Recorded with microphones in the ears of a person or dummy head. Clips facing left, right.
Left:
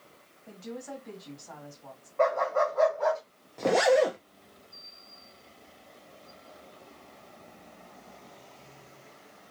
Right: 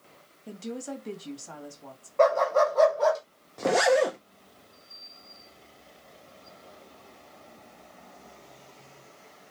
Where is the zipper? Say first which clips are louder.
Even; 5° right (ahead or behind), 0.7 m.